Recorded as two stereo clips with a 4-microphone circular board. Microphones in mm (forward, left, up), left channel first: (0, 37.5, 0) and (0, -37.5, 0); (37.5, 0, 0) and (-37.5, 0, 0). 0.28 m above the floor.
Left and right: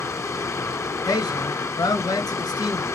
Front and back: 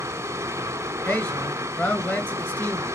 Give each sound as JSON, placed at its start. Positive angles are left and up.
{"t": 0.0, "sound": "running water", "azimuth_deg": 135, "distance_m": 1.8}
{"t": 1.1, "sound": "a man speaking", "azimuth_deg": 65, "distance_m": 3.5}